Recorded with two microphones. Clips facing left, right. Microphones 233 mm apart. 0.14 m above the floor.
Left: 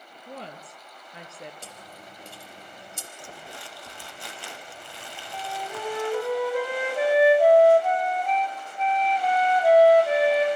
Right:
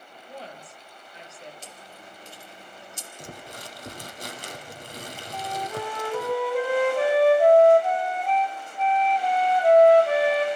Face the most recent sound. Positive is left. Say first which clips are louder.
# right 3 dB
turn(degrees=5)  # may be behind; listen again after turning